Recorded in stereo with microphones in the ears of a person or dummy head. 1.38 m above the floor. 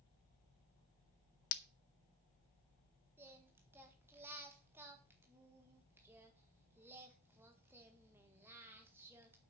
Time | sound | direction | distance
1.5 | breaking glass | 65° left (ahead or behind) | 1.0 m
3.2 | singing | 15° right (ahead or behind) | 1.7 m